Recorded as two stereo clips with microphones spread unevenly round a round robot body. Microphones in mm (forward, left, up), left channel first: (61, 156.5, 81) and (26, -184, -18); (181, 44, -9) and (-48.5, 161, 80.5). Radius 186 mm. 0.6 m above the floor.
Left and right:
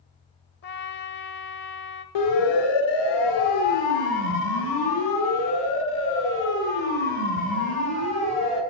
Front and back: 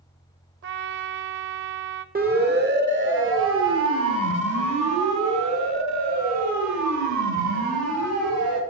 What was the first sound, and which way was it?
A trumpet, 135° left.